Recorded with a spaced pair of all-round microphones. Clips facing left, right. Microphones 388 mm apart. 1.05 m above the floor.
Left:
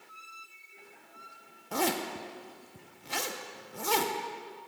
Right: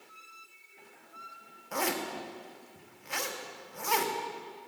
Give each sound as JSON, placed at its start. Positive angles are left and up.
{"t": 1.7, "sound": "a zipper", "side_deg": 50, "distance_m": 0.6}